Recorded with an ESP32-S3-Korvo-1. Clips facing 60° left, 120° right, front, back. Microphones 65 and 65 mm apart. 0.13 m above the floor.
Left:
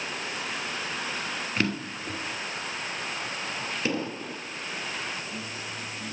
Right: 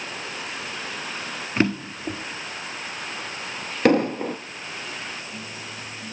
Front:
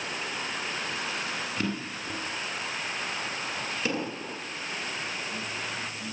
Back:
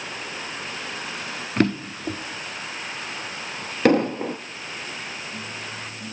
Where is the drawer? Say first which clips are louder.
Right 7 dB, back 9 dB; straight behind, 1.3 m.